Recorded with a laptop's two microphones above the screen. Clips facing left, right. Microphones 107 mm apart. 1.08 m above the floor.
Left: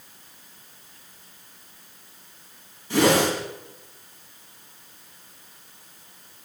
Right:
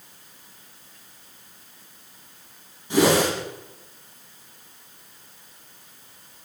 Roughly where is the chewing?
I don't hear chewing.